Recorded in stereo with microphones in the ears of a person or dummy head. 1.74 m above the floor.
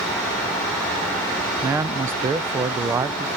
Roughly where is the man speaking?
Centre.